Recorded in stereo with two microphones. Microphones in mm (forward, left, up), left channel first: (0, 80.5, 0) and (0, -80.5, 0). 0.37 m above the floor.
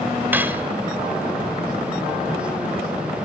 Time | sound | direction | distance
0.3 | cutlery clinking | 10° right (ahead or behind) | 0.8 m